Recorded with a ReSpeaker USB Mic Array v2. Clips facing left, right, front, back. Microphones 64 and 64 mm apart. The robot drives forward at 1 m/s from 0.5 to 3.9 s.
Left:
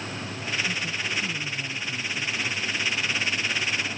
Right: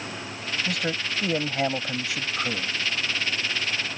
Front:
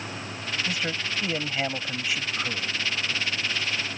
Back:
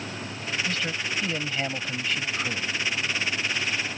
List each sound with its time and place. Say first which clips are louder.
0.7 s a man speaking: right 2 dB, even; 75° right; by 2.7 s 85° right